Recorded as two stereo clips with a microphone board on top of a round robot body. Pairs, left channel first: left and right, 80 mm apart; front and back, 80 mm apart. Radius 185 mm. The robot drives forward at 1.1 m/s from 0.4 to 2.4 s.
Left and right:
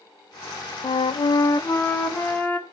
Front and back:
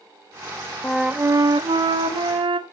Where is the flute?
70° left, 0.5 m; by 2.6 s 165° left, 1.6 m.